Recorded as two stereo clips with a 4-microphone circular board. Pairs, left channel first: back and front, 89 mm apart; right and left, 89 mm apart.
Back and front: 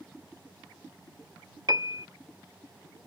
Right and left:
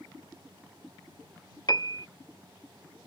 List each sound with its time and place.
1.7 s a piano: 45° right